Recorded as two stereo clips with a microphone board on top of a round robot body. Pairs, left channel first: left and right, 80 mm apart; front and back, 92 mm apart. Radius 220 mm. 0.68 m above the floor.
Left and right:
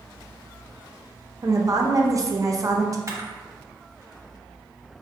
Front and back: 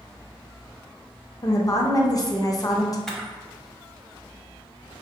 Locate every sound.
1.4 s a woman speaking: 45° right, 0.7 m
3.1 s a camera shutter: 80° right, 1.1 m